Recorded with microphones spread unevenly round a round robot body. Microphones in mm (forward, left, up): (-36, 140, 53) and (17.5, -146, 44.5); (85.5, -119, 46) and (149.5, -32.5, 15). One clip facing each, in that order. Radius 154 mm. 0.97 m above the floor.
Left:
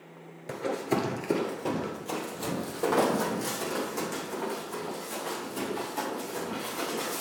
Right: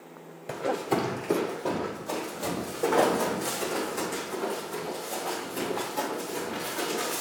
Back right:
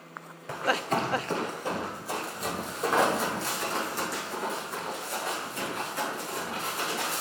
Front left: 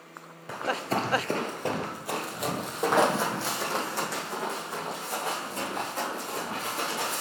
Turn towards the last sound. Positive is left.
turn(degrees=30)